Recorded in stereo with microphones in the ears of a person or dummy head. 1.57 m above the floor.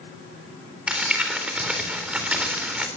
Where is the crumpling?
10° right (ahead or behind), 4 m.